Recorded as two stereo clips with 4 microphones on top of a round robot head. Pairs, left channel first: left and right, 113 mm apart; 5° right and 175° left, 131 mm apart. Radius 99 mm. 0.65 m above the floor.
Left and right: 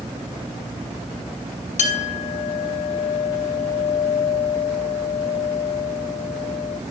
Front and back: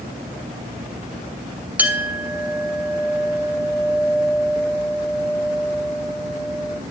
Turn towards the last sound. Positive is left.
turn(degrees=95)